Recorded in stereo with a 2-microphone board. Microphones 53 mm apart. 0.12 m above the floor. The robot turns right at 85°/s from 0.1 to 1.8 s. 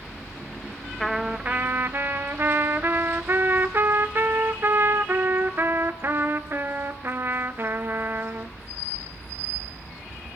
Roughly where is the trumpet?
Behind.